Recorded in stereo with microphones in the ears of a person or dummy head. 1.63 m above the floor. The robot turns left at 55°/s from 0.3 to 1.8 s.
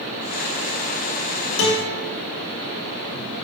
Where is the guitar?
75° left (ahead or behind), 4 m; by 2.0 s 85° left, 4 m.